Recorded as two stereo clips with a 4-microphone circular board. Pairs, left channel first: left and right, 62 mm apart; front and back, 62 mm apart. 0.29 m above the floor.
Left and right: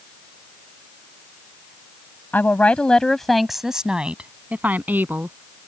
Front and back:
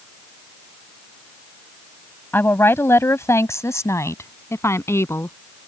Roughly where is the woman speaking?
Ahead left.